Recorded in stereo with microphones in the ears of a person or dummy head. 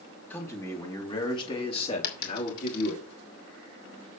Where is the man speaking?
15° left (ahead or behind), 4 m; by 3.0 s 50° left (ahead or behind), 4.5 m.